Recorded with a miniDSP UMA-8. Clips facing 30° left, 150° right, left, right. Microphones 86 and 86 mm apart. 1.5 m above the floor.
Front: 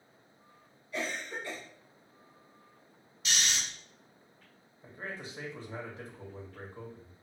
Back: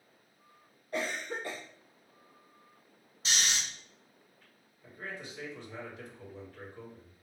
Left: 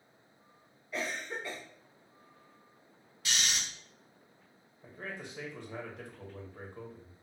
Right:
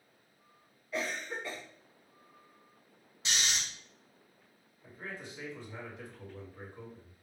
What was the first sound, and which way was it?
A cough, straight behind.